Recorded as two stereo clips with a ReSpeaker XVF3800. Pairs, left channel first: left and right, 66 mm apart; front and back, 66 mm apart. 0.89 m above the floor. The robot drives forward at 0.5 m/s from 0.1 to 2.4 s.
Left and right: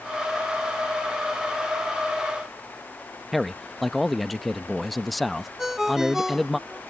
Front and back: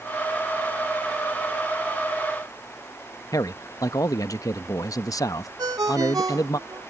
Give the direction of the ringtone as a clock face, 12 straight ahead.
6 o'clock.